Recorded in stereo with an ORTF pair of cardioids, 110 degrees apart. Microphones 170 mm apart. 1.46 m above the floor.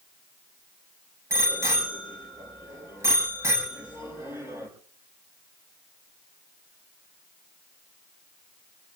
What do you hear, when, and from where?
1.3 s a bicycle bell: 15° right, 7 m